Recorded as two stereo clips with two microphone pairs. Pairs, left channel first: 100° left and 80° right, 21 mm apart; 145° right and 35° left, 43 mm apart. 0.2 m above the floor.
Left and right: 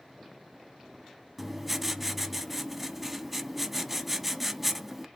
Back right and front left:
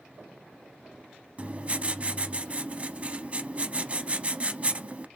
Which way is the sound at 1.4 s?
Straight ahead.